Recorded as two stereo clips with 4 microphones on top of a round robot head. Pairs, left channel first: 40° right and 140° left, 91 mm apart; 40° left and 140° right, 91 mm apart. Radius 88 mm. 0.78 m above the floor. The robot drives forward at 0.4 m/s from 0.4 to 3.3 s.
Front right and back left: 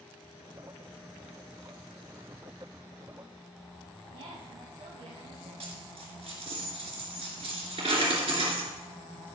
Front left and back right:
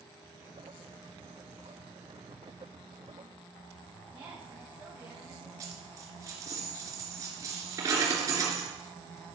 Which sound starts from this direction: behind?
A dropped coin, at 5.6 s.